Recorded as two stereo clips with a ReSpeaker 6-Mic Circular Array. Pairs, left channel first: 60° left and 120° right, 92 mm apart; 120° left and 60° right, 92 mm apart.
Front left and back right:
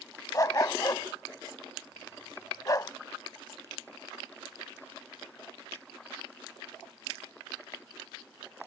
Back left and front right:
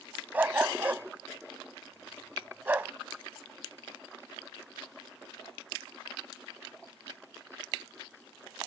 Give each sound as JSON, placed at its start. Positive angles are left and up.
{"t": 0.3, "sound": "a dog barking", "azimuth_deg": 10}